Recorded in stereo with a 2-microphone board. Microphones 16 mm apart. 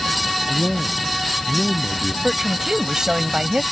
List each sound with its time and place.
0.5 s a man speaking: 35° left (ahead or behind)
2.2 s a woman speaking: 40° right (ahead or behind)